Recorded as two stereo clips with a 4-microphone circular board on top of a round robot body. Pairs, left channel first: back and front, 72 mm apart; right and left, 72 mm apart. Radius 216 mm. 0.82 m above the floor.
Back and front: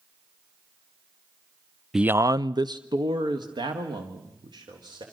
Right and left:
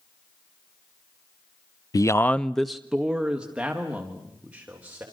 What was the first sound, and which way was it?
A man speaking, 85° right.